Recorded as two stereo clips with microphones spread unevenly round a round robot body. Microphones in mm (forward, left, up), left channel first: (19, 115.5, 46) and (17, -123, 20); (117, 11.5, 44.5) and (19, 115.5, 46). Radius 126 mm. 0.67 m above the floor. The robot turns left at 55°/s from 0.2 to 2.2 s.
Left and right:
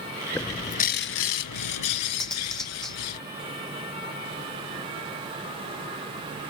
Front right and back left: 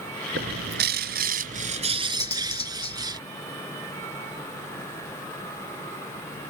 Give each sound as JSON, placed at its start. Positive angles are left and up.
{"t": 0.3, "sound": "a bird", "azimuth_deg": 175}
{"t": 2.2, "sound": "cutlery clinking", "azimuth_deg": 0}